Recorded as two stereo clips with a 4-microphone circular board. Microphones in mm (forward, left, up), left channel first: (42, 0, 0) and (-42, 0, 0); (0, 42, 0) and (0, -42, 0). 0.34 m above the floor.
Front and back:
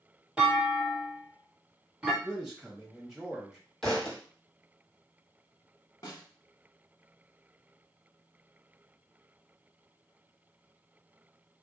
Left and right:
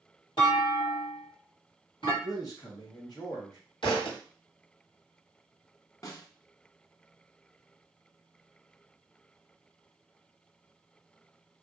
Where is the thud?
85° left, 1.8 m.